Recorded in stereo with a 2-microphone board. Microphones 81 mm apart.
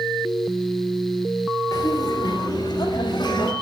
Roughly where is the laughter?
Left.